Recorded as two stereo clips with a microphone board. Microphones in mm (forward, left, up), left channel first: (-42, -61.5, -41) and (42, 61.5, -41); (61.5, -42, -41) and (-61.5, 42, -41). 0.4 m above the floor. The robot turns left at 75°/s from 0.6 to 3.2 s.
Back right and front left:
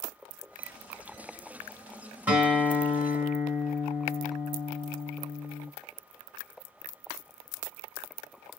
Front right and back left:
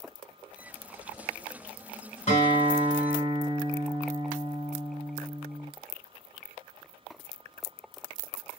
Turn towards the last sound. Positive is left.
turn(degrees=-90)